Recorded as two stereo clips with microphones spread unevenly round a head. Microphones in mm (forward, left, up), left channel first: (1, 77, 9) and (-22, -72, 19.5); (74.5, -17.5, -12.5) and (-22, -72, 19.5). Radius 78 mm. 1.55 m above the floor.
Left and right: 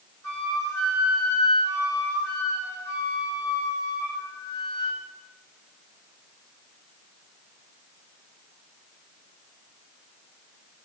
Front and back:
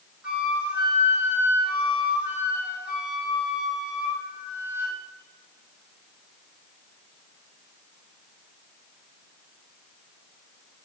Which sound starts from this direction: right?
A flute, at 0.2 s.